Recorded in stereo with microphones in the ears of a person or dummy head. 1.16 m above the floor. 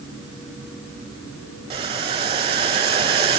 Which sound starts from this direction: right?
Boiling, at 1.7 s.